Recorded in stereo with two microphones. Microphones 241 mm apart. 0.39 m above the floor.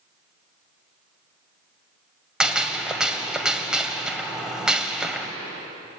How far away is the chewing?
I don't hear chewing.